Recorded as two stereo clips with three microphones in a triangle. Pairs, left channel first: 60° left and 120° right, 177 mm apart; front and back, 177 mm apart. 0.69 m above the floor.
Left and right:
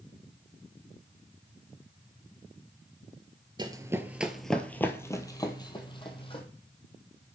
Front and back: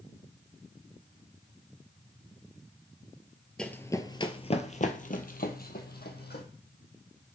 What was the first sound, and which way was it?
Running footsteps, 80° right.